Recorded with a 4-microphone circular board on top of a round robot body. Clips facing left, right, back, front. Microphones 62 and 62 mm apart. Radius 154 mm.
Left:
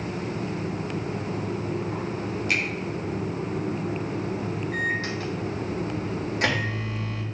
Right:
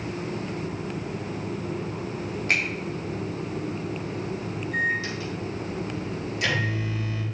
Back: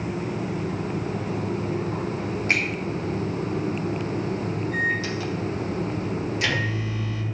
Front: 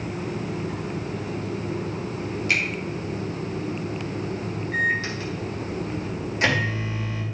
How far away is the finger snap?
About 4 m.